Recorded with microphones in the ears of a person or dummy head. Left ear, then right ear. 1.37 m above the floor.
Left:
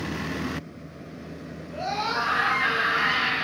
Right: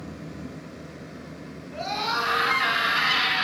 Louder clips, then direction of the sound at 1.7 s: Even; 15° right (ahead or behind).